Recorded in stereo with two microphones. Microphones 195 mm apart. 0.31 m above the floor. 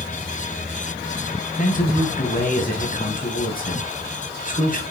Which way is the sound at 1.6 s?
45° left (ahead or behind).